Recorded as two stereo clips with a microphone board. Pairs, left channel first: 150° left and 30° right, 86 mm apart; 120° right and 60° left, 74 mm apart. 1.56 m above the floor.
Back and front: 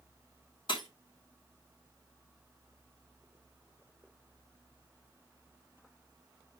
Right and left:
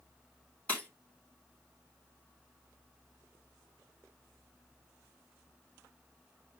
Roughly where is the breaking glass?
Behind.